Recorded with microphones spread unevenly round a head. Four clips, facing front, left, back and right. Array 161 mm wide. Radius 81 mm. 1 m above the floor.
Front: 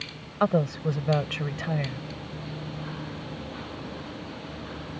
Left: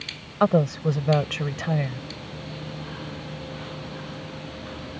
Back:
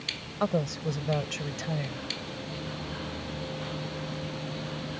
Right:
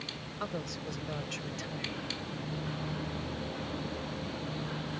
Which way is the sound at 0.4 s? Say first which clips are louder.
Left 18 dB, front 4 dB; 80° left.